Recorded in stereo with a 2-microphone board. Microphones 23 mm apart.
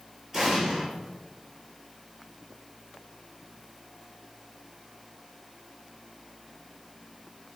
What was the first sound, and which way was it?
An explosion, 10° right (ahead or behind).